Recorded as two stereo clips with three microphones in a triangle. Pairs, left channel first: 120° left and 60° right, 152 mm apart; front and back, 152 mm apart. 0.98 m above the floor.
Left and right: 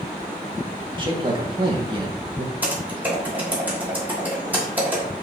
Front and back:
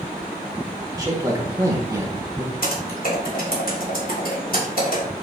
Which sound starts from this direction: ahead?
Typing on a keyboard, at 2.6 s.